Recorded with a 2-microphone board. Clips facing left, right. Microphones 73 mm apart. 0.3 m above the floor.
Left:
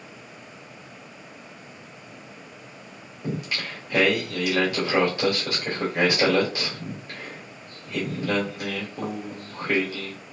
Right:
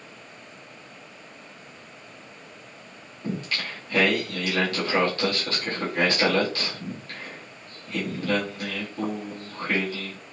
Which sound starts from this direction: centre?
Singing, at 3.2 s.